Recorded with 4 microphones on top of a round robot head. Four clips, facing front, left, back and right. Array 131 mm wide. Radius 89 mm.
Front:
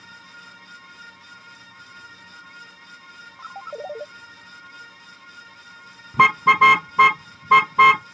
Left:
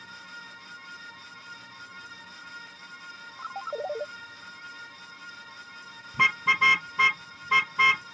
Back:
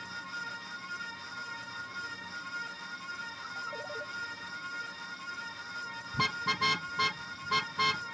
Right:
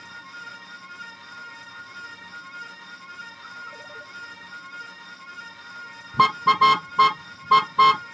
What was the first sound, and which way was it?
A ringtone, 45° left.